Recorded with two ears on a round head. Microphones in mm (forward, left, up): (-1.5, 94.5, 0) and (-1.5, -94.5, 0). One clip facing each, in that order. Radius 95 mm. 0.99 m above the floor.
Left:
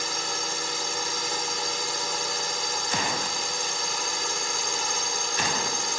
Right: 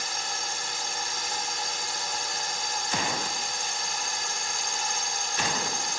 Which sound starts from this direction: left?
A drone, at 0.0 s.